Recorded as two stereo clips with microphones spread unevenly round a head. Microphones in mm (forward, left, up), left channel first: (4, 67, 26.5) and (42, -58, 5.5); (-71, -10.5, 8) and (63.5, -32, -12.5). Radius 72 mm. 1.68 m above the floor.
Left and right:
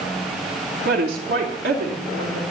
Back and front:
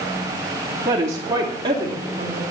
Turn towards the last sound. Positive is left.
turn(degrees=-65)